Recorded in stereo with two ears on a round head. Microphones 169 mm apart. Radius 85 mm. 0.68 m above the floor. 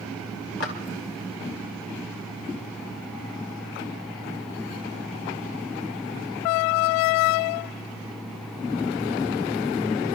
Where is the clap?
65° left (ahead or behind), 2 m.